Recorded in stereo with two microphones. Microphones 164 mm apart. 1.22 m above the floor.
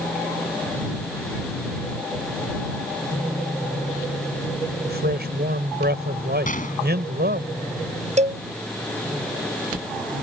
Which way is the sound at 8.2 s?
45° right (ahead or behind).